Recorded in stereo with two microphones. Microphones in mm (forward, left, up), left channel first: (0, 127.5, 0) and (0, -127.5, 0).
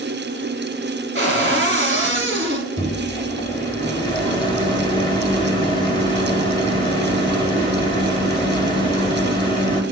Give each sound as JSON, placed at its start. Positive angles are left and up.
{"t": 1.1, "sound": "a cupboard door", "side_deg": -50, "distance_m": 1.8}
{"t": 2.8, "sound": "a microwave", "side_deg": 20, "distance_m": 1.1}